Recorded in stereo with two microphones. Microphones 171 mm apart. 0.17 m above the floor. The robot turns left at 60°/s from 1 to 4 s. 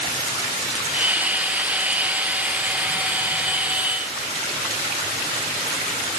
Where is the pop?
I don't hear a pop.